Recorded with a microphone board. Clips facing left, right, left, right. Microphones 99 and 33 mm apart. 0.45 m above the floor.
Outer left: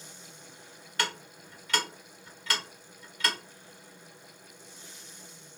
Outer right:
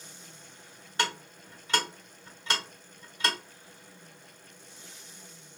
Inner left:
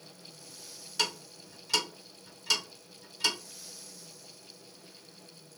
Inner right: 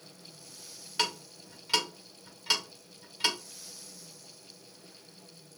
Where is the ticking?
25° right (ahead or behind), 1.4 m.